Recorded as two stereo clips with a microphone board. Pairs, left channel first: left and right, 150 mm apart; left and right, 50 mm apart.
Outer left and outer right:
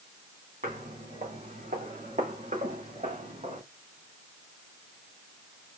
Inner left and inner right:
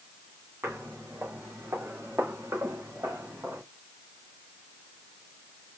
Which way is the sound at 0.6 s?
60° right (ahead or behind).